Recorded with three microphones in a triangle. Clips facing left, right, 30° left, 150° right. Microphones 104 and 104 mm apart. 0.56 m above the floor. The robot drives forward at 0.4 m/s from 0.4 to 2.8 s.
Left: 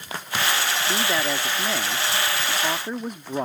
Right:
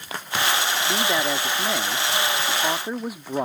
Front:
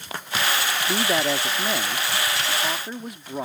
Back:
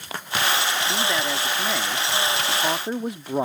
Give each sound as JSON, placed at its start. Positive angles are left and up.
{"t": 0.9, "sound": "a man speaking", "azimuth_deg": -10}